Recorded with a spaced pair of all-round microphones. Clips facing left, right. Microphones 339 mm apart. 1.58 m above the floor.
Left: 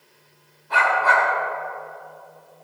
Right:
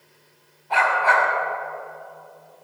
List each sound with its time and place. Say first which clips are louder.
0.7 s a dog barking: even; 15° left (ahead or behind), 6 m